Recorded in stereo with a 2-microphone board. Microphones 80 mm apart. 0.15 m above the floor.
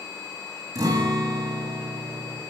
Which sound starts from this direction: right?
A guitar, at 0.8 s.